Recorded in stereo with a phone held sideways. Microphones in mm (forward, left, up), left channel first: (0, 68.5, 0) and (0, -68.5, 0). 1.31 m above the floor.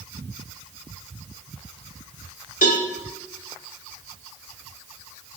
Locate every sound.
2.6 s a cowbell: 85° left, 3.5 m